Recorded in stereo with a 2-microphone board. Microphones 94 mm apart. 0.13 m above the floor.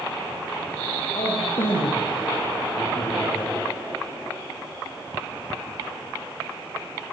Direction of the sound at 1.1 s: 65° left (ahead or behind).